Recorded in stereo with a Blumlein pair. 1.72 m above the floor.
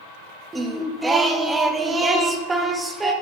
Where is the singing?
10° right, 0.8 m.